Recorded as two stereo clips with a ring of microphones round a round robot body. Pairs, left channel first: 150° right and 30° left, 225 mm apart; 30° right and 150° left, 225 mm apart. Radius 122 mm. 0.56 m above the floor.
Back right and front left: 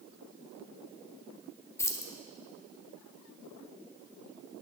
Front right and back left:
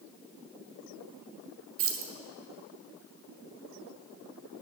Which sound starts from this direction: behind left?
Keys jangling, at 1.8 s.